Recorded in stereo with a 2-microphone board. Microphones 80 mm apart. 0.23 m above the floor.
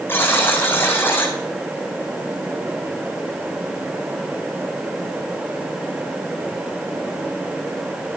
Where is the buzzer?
30° left (ahead or behind), 2.5 m.